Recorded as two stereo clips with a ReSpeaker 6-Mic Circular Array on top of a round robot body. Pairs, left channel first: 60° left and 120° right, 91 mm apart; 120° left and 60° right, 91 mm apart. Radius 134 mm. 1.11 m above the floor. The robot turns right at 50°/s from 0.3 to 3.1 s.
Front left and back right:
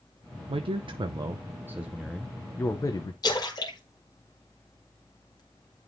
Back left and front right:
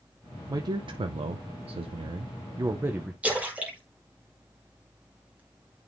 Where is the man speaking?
110° right, 0.6 m; by 3.1 s 20° left, 0.6 m.